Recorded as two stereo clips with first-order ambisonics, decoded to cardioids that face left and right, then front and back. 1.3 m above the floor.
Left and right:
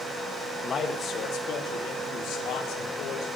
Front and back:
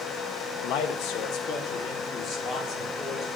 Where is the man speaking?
25° left, 1.6 m; by 3.3 s 60° left, 4.5 m.